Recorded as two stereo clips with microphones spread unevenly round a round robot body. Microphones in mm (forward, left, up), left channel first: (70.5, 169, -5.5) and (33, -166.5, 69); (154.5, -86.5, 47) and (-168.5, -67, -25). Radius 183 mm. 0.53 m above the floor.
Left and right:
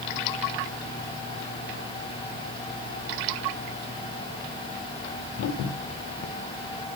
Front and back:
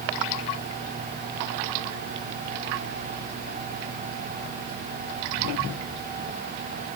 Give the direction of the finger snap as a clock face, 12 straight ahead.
No finger snap in this recording.